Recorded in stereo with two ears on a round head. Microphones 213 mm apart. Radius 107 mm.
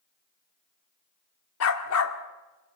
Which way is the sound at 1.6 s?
65° left (ahead or behind).